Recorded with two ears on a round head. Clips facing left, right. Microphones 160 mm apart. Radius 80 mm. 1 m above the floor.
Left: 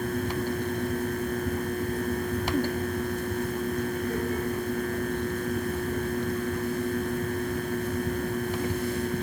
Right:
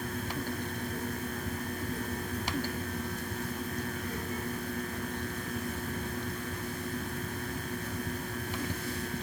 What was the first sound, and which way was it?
Only background noise.